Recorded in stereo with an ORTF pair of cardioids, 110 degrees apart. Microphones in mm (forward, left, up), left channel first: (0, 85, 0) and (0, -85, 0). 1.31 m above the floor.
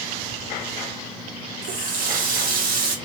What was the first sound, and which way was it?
A running tap, 60° right.